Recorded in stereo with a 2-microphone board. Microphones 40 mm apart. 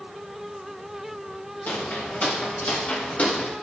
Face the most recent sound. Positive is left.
turn(degrees=35)  # may be behind; listen again after turning